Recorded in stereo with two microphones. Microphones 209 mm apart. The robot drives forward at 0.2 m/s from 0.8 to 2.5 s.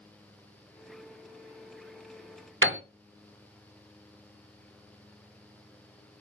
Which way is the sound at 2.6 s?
70° right (ahead or behind).